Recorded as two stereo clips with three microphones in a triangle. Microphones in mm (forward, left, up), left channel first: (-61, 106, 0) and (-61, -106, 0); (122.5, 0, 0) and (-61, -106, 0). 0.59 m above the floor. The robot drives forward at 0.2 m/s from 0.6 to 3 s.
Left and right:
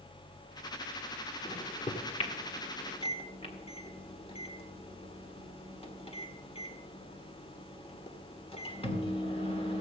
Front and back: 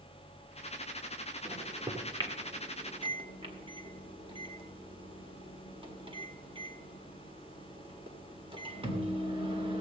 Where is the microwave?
145° left, 1.5 m; by 9.8 s 150° left, 1.7 m.